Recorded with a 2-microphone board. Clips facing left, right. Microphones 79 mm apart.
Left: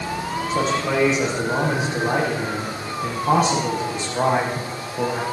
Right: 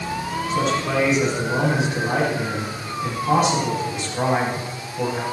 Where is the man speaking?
35° left (ahead or behind), 8.5 m.